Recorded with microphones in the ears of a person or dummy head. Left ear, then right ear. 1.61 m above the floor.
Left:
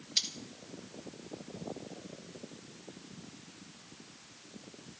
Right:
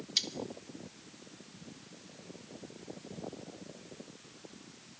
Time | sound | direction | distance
0.2 | cutlery clinking | centre (ahead or behind) | 1.3 m